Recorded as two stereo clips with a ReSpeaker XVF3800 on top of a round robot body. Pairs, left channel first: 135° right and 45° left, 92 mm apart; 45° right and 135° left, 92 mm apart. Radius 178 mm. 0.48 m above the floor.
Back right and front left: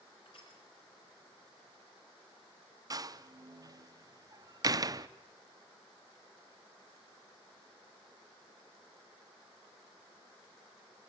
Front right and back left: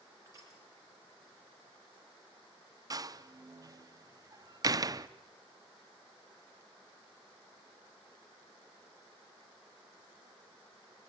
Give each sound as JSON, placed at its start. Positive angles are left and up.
{"t": 0.2, "sound": "crushing", "azimuth_deg": -170, "distance_m": 5.0}
{"t": 2.9, "sound": "a door slam", "azimuth_deg": 90, "distance_m": 0.8}